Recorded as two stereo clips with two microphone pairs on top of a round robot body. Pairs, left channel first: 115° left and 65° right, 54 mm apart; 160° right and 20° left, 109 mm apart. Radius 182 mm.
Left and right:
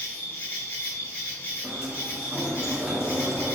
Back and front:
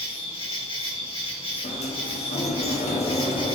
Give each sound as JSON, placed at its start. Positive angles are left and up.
{"t": 0.0, "sound": "an insect", "azimuth_deg": 180, "distance_m": 4.0}
{"t": 1.6, "sound": "a sliding door", "azimuth_deg": -145, "distance_m": 1.1}